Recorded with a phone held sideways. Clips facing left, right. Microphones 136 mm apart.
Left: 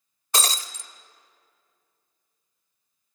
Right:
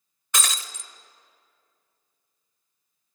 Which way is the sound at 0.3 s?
35° left (ahead or behind).